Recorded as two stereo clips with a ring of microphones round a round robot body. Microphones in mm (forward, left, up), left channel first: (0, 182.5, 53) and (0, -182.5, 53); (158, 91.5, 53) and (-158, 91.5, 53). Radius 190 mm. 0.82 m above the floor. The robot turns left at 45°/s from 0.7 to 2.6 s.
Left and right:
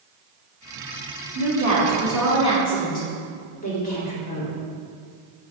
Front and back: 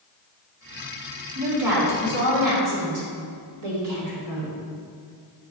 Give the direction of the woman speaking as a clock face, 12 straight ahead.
5 o'clock.